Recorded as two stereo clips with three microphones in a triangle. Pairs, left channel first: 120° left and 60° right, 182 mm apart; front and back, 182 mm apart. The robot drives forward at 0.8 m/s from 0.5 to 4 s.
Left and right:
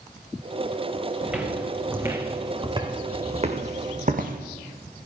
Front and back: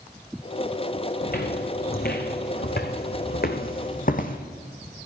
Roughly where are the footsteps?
Ahead left.